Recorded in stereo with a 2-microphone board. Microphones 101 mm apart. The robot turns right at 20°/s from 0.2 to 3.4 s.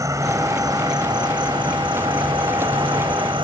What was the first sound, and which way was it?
An insect, 140° right.